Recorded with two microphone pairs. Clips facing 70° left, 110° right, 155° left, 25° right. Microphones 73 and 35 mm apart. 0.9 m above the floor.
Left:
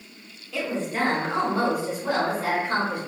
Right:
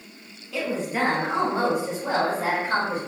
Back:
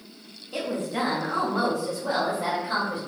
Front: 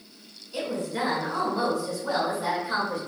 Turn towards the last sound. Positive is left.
turn(degrees=-160)